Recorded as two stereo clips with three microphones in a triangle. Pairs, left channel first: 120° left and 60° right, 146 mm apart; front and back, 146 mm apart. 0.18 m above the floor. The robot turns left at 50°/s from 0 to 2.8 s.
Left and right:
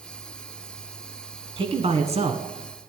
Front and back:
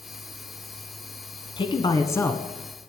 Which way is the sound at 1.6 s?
30° right.